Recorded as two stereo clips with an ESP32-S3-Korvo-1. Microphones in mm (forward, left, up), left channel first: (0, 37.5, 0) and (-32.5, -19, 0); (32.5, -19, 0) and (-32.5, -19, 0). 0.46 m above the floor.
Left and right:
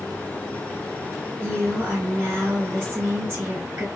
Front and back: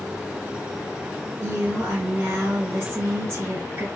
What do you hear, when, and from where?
1.4 s a woman speaking: 155° right, 1.7 m